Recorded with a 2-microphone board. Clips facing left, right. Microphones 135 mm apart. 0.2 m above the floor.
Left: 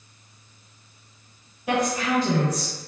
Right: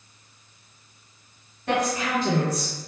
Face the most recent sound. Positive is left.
turn(degrees=-40)  # may be behind; listen again after turning